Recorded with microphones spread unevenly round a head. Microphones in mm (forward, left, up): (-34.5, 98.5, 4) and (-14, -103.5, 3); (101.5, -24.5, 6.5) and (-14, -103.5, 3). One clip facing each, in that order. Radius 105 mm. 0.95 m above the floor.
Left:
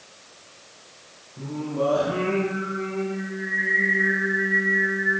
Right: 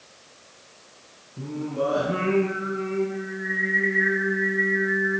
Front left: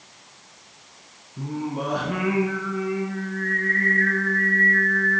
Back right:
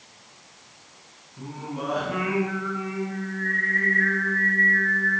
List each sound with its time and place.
1.4 s singing: 15° right, 4.5 m